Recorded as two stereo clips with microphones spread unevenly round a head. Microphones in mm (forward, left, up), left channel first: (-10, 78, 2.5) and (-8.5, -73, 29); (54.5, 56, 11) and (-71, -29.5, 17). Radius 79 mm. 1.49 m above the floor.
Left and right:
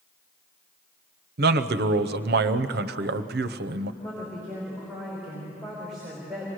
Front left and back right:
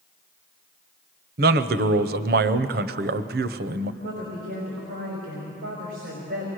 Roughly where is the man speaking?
Behind right.